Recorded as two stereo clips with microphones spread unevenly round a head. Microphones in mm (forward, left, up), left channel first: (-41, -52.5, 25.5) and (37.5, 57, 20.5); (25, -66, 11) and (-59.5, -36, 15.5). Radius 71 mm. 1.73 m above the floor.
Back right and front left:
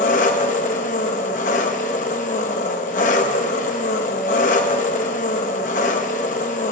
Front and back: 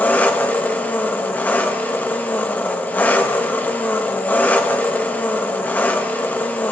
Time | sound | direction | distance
0.0 | an engine running | 90° right | 0.8 m